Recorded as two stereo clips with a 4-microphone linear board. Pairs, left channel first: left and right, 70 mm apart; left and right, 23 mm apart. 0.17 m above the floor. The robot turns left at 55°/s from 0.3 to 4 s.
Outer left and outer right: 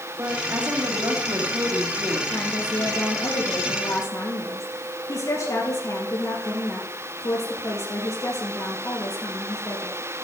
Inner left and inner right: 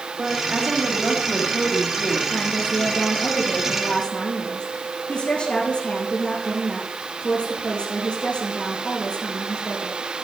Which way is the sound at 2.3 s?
155° left.